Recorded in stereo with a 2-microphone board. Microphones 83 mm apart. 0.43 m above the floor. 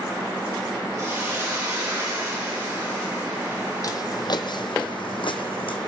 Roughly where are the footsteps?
Left.